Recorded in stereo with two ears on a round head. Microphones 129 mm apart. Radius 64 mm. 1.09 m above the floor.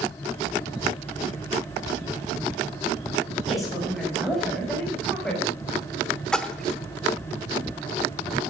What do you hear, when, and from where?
3.5 s a woman speaking: centre (ahead or behind), 6.5 m; by 5.5 s 5° left (ahead or behind), 5.5 m
6.3 s a splash: 5° left (ahead or behind), 0.9 m